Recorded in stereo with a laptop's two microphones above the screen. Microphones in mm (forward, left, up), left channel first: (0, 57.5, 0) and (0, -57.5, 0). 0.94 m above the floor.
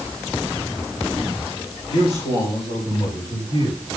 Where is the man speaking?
65° left (ahead or behind), 5 m; by 3.8 s 75° left (ahead or behind), 7 m.